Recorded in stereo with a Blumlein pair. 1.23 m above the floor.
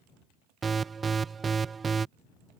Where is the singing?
No singing in this recording.